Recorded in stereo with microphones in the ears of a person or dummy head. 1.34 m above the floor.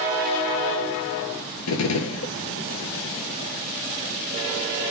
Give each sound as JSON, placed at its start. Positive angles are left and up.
{"t": 1.7, "sound": "a gunshot", "side_deg": 80, "distance_m": 0.8}